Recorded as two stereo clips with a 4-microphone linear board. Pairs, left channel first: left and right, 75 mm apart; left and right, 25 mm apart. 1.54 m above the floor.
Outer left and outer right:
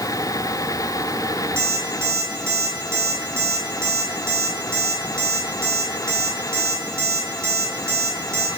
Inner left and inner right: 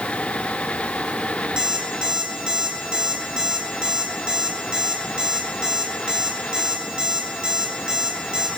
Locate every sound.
1.6 s an alarm clock: 35° right (ahead or behind), 5.5 m